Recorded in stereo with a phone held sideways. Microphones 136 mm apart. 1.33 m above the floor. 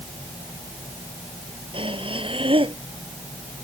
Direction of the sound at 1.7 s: 40° right (ahead or behind).